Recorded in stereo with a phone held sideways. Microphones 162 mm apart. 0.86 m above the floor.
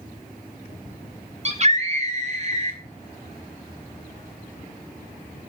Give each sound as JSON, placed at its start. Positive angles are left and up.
{"t": 1.4, "sound": "a scream", "side_deg": -45, "distance_m": 1.4}